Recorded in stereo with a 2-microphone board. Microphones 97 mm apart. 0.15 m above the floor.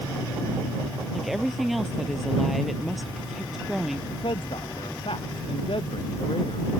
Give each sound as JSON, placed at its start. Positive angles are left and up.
{"t": 1.1, "sound": "a woman speaking", "side_deg": 0}
{"t": 4.1, "sound": "a man speaking", "side_deg": 65}